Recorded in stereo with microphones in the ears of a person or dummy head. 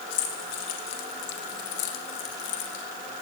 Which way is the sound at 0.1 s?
65° left (ahead or behind).